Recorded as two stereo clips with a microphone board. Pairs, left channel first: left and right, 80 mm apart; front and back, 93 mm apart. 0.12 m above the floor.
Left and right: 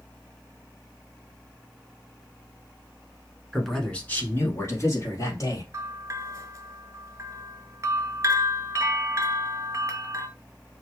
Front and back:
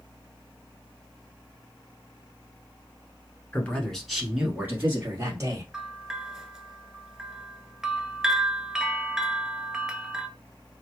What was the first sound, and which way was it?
A man speaking, 5° right.